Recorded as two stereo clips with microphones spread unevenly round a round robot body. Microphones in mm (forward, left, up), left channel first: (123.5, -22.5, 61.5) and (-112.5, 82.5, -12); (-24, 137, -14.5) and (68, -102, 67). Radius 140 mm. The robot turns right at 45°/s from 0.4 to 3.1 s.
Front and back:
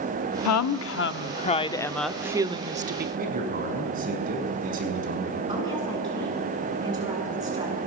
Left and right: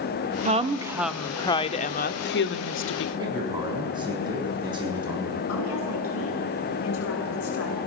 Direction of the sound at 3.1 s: 145° right.